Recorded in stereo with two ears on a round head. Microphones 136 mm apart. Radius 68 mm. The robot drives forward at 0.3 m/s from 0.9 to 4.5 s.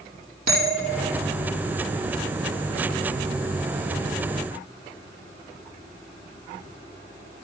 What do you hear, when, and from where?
0.5 s a bell: 60° right (ahead or behind), 4 m; by 1.1 s 65° right (ahead or behind), 3.5 m